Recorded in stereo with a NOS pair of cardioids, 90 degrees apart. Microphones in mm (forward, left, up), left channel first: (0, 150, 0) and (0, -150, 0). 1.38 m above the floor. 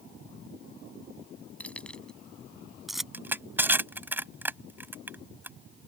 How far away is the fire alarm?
I don't hear a fire alarm.